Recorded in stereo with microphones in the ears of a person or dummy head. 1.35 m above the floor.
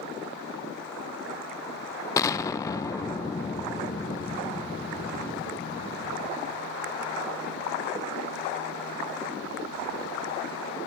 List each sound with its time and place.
2.2 s an explosion: 20° left (ahead or behind), 0.5 m